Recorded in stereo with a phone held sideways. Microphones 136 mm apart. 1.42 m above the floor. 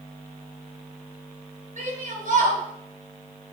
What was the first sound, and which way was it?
A shout, 65° right (ahead or behind).